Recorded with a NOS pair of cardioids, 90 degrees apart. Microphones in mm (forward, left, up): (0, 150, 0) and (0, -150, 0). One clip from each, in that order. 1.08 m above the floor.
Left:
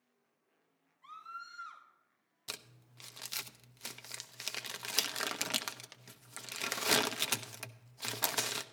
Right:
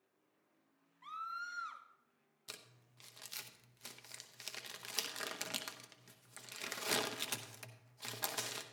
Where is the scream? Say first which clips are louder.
Right 3 dB; 60° right, 2.5 m.